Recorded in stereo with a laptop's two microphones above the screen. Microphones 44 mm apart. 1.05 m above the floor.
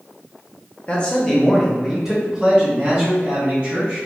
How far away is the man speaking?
About 0.7 m.